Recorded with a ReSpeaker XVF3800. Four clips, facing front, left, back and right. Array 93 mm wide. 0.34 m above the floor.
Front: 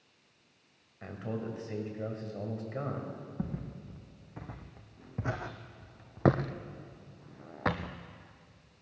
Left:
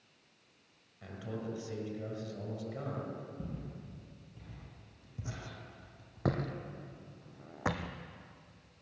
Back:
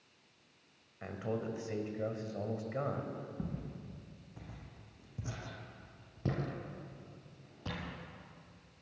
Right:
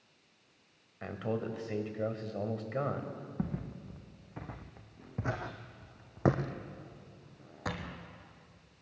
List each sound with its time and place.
1.0 s a man speaking: 100° right, 1.7 m
3.4 s footsteps: 70° right, 1.9 m; by 7.9 s 30° left, 1.2 m